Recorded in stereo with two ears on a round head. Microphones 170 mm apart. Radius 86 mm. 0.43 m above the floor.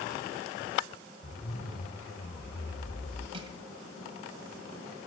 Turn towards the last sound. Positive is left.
turn(degrees=-30)  # may be behind; listen again after turning